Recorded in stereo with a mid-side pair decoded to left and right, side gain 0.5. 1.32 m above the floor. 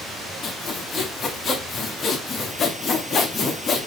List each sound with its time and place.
0.4 s sawing: 40° left, 2.5 m